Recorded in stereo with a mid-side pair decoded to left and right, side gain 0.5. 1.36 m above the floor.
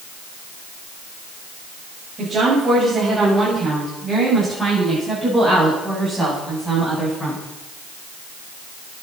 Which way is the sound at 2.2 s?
30° right.